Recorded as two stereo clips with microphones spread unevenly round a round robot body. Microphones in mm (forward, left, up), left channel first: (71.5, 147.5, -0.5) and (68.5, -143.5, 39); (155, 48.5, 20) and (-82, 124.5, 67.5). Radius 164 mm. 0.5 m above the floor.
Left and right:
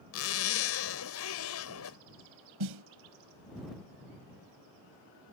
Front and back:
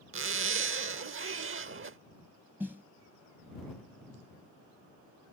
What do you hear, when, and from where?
0.1 s a zipper: 125° left
2.6 s a snare drum: 110° right